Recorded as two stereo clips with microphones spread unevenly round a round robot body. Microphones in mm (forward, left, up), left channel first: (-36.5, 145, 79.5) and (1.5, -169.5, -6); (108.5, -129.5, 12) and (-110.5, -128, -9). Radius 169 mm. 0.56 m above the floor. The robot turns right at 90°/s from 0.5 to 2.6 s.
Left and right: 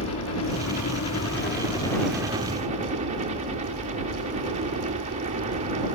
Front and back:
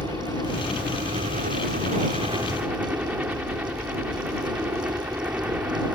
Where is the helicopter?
70° left; by 6.0 s 105° right.